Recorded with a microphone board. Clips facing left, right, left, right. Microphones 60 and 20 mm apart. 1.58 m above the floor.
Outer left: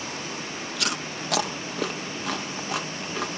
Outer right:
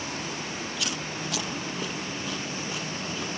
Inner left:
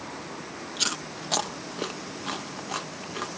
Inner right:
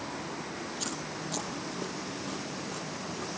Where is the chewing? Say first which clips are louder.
Outer left 2 dB, inner left 11 dB; 75° left (ahead or behind).